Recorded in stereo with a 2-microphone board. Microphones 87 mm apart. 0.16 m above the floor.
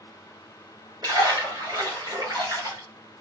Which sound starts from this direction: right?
A splash, at 1.0 s.